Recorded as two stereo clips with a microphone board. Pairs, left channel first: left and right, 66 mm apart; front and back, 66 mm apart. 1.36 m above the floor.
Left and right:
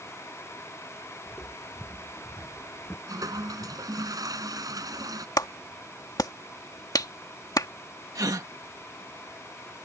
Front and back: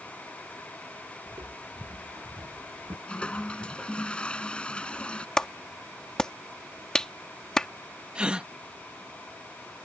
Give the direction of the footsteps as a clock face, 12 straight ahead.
7 o'clock.